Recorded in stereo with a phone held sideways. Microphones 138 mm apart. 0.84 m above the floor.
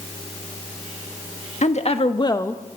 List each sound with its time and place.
1.6 s a woman speaking: 55° left (ahead or behind), 1.5 m; by 2.6 s 5° left (ahead or behind), 0.9 m